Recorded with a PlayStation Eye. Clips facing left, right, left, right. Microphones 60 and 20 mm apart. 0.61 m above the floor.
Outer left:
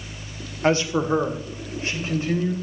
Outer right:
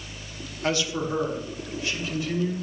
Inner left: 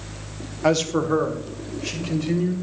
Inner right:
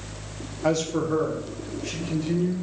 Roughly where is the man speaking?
Left.